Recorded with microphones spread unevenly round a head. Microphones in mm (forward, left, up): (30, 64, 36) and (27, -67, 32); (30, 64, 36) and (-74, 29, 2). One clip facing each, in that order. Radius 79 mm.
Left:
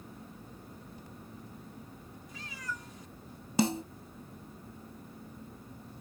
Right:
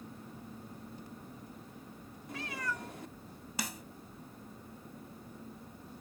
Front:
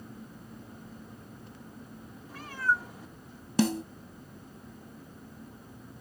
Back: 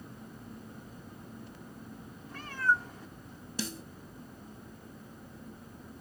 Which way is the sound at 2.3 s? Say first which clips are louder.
Right 5 dB, even; 60° right.